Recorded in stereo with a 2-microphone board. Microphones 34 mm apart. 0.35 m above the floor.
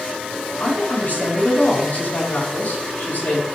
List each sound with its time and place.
0.6 s a woman speaking: 60° left (ahead or behind), 3.5 m